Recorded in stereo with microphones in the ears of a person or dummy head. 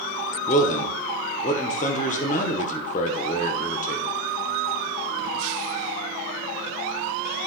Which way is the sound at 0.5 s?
40° left (ahead or behind).